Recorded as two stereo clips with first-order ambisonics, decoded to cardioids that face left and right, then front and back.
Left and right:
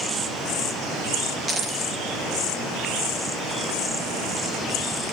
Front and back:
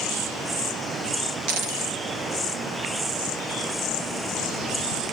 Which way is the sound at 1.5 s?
165° right.